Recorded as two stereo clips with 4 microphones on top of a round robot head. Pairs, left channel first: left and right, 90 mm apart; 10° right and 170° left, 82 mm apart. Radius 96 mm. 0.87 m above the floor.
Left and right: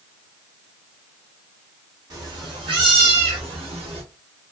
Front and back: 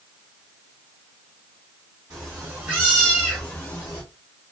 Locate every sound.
2.1 s a cat meowing: 135° right, 1.0 m; by 4.0 s 65° right, 0.9 m